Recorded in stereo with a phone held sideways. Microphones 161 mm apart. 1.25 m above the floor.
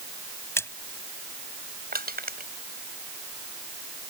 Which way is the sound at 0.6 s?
15° left (ahead or behind).